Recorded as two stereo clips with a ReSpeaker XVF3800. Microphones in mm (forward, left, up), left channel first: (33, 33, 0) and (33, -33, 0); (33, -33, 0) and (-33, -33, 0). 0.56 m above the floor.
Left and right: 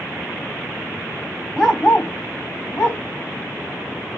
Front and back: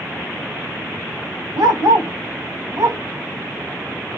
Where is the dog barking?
170° left, 1.1 m; by 3.0 s 145° left, 1.7 m.